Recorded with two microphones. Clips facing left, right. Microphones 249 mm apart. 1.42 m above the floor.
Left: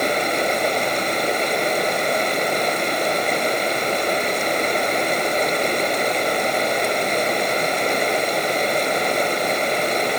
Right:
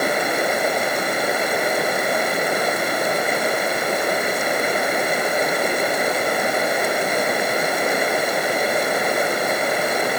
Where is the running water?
5° right (ahead or behind).